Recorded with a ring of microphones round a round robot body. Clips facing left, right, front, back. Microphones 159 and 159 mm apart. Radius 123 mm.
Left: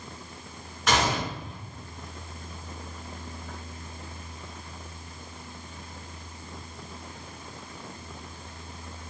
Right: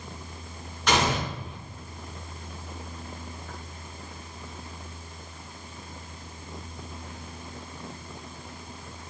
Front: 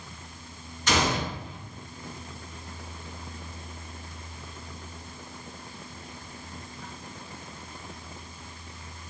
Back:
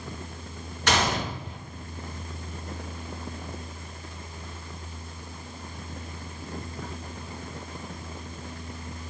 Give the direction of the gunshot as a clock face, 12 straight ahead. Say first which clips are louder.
Right 1 dB, even; 6 o'clock.